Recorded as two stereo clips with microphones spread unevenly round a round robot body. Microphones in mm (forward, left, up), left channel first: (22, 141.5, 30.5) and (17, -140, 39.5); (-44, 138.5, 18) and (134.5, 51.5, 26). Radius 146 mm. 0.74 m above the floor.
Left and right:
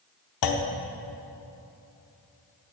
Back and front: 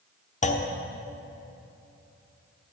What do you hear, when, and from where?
0.4 s a clunk: 100° left, 1.0 m